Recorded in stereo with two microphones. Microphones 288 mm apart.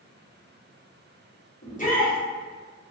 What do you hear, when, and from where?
1.6 s a shout: 25° left (ahead or behind), 1.3 m